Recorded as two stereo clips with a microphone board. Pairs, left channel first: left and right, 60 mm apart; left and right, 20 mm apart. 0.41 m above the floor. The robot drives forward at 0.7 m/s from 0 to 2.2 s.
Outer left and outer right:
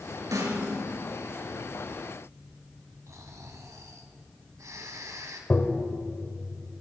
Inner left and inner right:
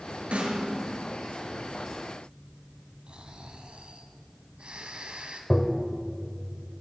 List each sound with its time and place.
0.3 s a snare drum: 80° right, 7 m
3.1 s snoring: 60° right (ahead or behind), 3 m
5.5 s tapping: 35° left (ahead or behind), 2.0 m